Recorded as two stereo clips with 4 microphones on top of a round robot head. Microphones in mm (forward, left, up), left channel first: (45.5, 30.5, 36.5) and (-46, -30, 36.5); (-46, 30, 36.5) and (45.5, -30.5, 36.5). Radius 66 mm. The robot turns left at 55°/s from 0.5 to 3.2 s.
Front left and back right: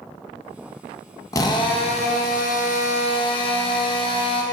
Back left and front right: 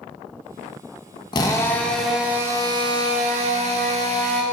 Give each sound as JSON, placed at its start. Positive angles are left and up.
{"t": 1.3, "sound": "a drill", "azimuth_deg": 95, "distance_m": 1.0}